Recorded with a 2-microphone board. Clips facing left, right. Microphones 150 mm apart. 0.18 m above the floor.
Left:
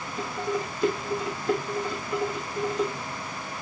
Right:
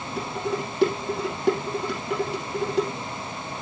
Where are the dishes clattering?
75° right (ahead or behind), 5 m.